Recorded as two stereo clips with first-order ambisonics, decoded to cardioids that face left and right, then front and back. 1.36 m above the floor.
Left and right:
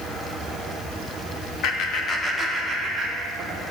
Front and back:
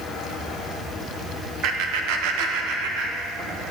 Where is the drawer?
No drawer in this recording.